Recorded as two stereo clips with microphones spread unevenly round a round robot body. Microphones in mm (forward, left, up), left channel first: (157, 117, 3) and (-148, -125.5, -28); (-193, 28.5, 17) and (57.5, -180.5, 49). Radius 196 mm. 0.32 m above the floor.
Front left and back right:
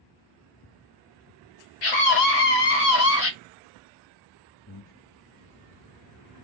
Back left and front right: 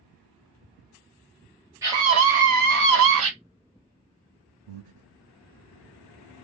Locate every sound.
1.8 s a scream: 45° left, 1.5 m; by 3.3 s 10° right, 1.4 m
4.7 s breathing: 15° right, 0.8 m